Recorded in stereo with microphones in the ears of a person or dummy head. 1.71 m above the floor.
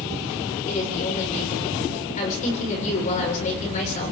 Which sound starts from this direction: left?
A woman speaking, at 0.7 s.